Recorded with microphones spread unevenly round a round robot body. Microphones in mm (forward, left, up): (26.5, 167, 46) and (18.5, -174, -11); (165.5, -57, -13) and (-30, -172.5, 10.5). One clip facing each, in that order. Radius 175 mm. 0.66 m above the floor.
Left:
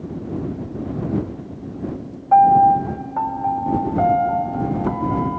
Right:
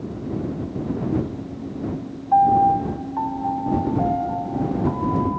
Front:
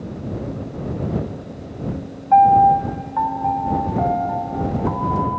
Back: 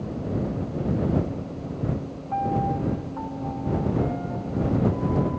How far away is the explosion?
I don't hear an explosion.